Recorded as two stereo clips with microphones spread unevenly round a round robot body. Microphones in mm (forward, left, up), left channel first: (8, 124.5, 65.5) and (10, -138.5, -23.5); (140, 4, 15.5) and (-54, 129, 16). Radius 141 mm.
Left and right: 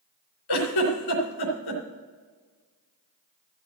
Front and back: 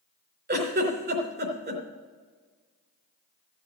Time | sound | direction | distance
0.5 | a giggle | 105° left | 3.5 m